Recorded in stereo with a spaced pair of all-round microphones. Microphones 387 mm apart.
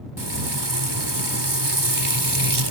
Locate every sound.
0.2 s frying: 75° right (ahead or behind)